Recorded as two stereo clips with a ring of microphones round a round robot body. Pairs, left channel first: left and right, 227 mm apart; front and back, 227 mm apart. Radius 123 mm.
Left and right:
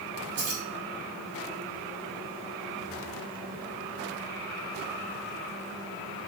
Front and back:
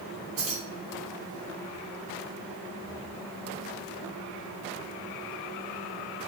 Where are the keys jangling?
140° right, 1.3 m.